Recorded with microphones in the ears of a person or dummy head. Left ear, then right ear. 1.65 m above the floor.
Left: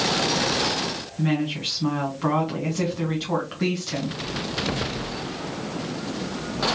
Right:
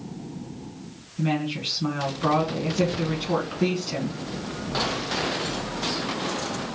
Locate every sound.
1.2 s a woman speaking: 10° left (ahead or behind), 1.5 m